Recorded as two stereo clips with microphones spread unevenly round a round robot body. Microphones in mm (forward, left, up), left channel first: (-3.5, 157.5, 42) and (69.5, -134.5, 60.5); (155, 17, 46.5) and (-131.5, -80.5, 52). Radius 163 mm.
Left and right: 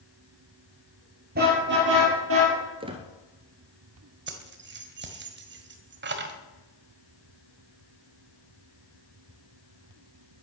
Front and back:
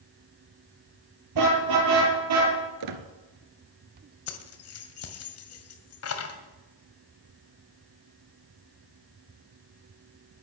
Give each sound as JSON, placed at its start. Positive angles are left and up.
{"t": 1.4, "sound": "a car horn", "azimuth_deg": -140, "distance_m": 6.5}
{"t": 2.8, "sound": "a squeak", "azimuth_deg": -150, "distance_m": 1.5}
{"t": 4.3, "sound": "keys jangling", "azimuth_deg": -20, "distance_m": 2.0}